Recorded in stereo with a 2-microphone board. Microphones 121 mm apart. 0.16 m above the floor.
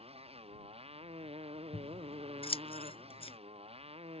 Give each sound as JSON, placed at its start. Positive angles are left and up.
{"t": 0.0, "sound": "a motorcycle", "side_deg": -55}
{"t": 1.7, "sound": "scissors", "side_deg": 55}